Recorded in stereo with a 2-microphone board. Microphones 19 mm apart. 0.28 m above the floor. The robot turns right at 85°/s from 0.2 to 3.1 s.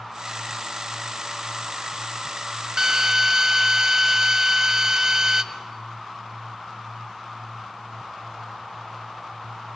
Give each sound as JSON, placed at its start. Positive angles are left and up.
{"t": 2.8, "sound": "a drill", "side_deg": -35, "distance_m": 1.8}